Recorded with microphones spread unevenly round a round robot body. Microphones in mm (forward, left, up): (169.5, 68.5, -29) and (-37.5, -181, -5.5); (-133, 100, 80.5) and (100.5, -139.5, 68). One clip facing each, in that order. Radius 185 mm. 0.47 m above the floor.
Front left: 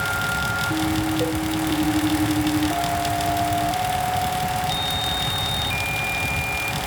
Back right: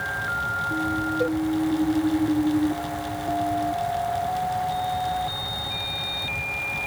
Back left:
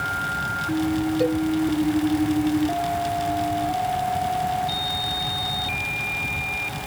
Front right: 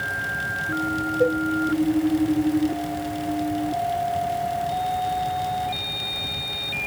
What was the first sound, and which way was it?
A cowbell, 165° left.